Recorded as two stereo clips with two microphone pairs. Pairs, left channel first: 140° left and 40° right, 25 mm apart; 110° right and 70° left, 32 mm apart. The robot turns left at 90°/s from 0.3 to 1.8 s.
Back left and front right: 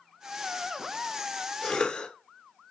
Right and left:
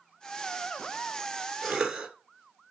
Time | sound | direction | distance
1.6 | a cough | 155° left | 1.9 m